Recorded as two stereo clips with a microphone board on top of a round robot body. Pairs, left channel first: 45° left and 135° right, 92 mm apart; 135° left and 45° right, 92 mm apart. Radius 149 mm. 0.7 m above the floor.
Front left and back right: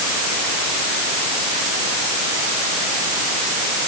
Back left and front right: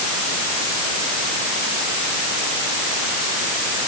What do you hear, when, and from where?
Only background noise.